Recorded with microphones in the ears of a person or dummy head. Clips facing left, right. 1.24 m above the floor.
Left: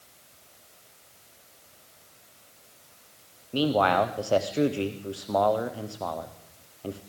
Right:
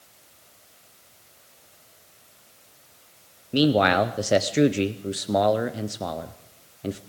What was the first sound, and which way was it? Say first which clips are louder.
A man speaking: right 3 dB; 25° right (ahead or behind).